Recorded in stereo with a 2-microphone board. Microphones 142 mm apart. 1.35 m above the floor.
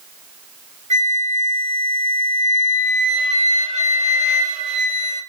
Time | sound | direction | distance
0.9 | a flute | 55° right (ahead or behind) | 1.0 m